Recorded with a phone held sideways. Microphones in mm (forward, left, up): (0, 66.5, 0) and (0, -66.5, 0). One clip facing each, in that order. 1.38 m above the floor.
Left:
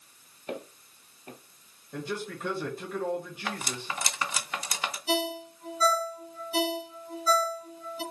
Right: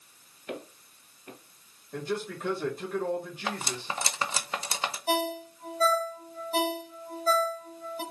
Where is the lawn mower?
I don't hear a lawn mower.